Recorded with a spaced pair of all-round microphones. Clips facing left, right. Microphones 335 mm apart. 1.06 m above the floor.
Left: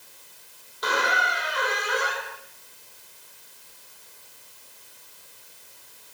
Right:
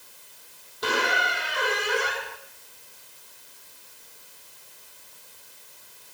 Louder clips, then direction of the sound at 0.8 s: Right 1 dB; 40° right (ahead or behind).